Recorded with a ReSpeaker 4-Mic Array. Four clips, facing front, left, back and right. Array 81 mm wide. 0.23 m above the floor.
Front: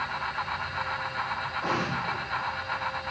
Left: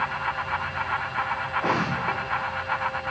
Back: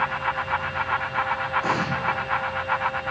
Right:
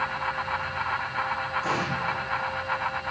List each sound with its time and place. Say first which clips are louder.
1.6 s an explosion: left 5 dB, back 5 dB; 100° left, 5 m